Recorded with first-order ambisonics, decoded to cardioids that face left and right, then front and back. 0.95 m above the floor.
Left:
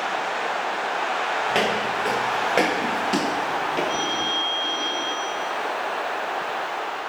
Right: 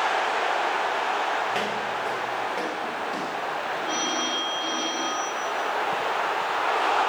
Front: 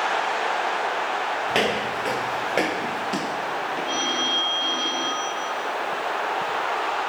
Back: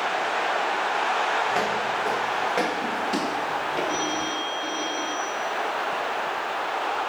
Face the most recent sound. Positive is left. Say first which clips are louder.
# left 2 dB, front 3 dB
turn(degrees=-25)